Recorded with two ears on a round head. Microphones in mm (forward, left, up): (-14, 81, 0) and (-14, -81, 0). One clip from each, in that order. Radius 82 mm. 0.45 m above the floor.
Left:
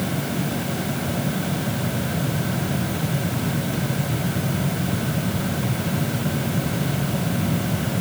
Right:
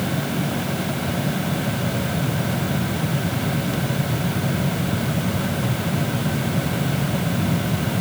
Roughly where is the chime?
I don't hear a chime.